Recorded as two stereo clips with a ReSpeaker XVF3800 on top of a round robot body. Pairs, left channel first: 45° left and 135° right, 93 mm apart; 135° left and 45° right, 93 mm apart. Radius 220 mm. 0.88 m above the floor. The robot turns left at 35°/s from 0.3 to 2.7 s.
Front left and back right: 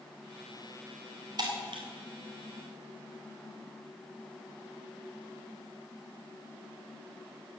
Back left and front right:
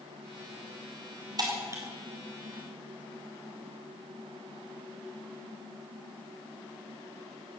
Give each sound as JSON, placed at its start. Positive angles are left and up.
{"t": 1.4, "sound": "breaking glass", "azimuth_deg": -90, "distance_m": 2.5}